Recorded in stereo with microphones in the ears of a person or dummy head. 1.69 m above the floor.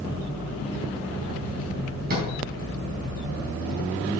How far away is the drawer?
About 3.5 m.